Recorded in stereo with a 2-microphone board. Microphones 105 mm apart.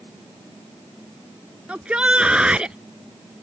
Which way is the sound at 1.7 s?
10° right (ahead or behind).